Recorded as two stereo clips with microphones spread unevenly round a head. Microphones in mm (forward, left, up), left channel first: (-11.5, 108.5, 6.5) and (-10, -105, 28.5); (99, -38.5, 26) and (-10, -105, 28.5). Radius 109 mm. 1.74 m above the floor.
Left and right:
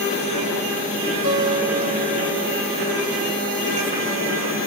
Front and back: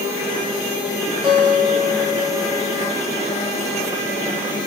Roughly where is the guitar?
Ahead right.